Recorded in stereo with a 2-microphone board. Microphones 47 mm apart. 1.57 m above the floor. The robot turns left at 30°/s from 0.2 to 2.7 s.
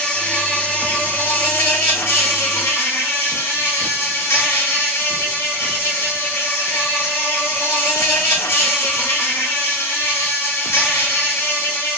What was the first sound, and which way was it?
An insect, 155° left.